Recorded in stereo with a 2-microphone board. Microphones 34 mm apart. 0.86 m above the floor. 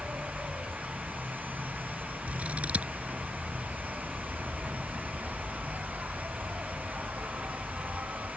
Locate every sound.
0.0 s an insect: 70° right (ahead or behind)
2.3 s scissors: 40° right (ahead or behind)